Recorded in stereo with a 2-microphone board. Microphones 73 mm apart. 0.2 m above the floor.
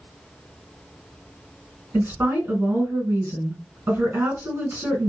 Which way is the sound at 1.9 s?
35° right (ahead or behind).